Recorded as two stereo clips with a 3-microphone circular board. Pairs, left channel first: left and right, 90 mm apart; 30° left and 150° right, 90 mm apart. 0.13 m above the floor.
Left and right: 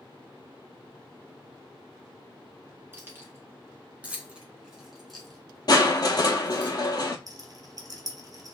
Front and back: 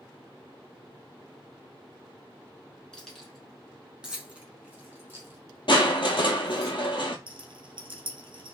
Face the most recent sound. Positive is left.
turn(degrees=-130)